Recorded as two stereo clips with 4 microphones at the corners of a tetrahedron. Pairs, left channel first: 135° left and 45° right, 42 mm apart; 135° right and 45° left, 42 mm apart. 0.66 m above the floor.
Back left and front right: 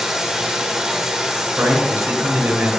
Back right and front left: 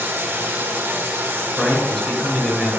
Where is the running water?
35° left, 1.3 m.